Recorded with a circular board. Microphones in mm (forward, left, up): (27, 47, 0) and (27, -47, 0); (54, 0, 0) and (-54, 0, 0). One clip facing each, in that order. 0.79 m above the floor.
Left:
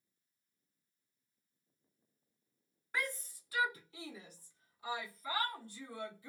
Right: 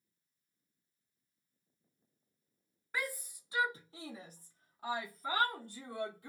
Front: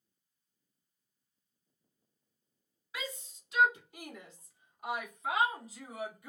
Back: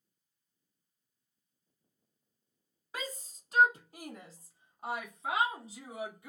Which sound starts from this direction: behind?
A shout, at 2.9 s.